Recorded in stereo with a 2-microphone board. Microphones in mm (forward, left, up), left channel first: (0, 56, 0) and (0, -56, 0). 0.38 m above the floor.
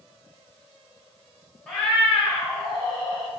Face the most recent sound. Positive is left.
turn(degrees=5)  # may be behind; listen again after turning